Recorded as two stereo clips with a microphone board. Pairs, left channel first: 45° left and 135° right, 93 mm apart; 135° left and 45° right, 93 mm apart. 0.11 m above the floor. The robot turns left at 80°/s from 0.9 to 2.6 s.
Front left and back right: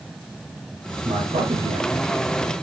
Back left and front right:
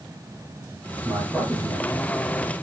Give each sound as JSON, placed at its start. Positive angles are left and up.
{"t": 1.0, "sound": "a man speaking", "azimuth_deg": -100, "distance_m": 5.5}